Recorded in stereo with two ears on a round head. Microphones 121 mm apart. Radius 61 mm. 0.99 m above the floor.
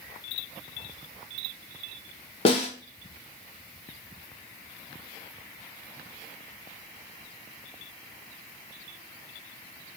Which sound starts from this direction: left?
A snare drum, at 2.5 s.